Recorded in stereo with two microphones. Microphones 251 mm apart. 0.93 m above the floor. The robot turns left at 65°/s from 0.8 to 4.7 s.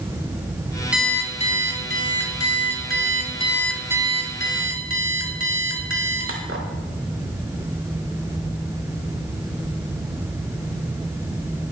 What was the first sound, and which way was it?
An alarm clock, 175° right.